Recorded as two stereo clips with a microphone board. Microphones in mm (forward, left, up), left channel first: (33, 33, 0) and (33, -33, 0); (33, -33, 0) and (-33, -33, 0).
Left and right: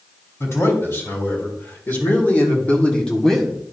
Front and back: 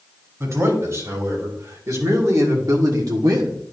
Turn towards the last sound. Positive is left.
turn(degrees=-170)